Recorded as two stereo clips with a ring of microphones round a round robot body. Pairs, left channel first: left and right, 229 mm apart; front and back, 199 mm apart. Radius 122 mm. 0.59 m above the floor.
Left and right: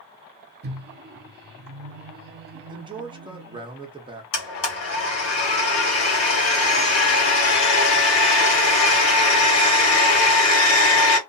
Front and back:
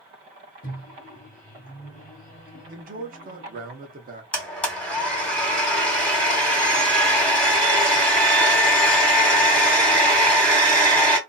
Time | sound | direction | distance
0.6 | a microwave | 50° right | 0.7 m
2.7 | a man speaking | 155° right | 0.8 m
4.3 | a blender | 85° left | 1.5 m